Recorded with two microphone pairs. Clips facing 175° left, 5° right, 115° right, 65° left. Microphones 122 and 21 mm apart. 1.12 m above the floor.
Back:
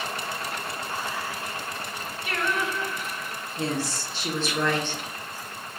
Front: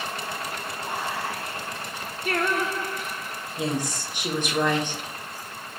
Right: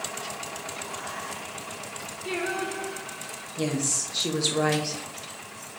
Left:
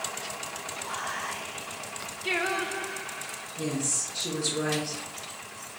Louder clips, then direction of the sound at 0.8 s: Front 5 dB, left 2 dB; 15° left.